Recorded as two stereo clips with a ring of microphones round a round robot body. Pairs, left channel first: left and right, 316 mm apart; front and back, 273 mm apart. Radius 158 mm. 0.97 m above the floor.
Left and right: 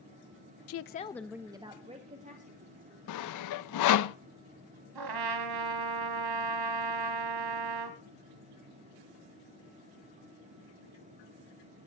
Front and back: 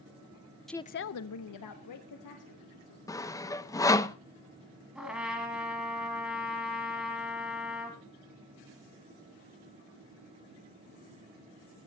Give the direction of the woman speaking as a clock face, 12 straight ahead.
9 o'clock.